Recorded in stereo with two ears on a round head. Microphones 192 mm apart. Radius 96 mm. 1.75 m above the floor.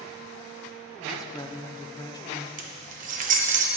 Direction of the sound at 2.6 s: 40° right (ahead or behind).